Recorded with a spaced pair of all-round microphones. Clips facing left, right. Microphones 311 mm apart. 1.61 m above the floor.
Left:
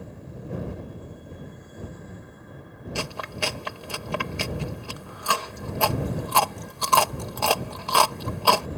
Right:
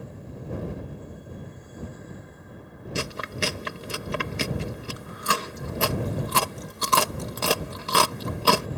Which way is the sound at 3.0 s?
25° right (ahead or behind).